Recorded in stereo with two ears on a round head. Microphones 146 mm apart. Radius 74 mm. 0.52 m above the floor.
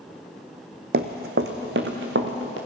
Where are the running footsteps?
60° right (ahead or behind), 1.3 m; by 2.6 s 75° right (ahead or behind), 3 m.